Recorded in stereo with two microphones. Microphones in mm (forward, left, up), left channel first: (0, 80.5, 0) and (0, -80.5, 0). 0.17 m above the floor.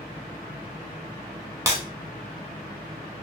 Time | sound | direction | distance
1.7 | breaking glass | 15° right (ahead or behind) | 0.8 m